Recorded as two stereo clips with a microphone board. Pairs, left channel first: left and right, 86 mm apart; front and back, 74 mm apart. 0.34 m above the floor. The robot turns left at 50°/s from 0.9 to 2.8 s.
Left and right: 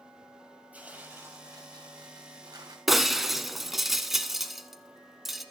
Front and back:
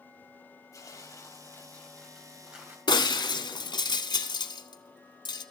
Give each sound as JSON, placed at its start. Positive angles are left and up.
{"t": 0.7, "sound": "tearing paper", "azimuth_deg": -25, "distance_m": 1.9}
{"t": 2.9, "sound": "breaking glass", "azimuth_deg": -5, "distance_m": 0.7}